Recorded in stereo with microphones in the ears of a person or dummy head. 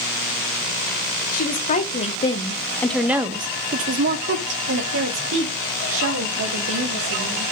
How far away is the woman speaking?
About 1.4 m.